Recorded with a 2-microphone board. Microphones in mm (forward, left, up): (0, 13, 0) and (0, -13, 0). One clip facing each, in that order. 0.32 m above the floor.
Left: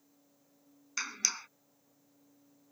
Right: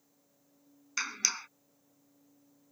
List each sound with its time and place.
1.0 s a clap: 10° right (ahead or behind)